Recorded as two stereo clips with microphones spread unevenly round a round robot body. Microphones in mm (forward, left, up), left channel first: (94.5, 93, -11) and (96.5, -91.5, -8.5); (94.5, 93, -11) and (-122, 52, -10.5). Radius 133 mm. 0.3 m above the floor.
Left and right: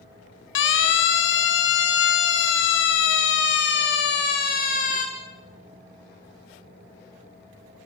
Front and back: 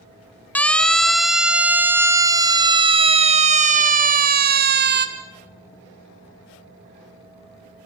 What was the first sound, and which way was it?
A siren, 95° left.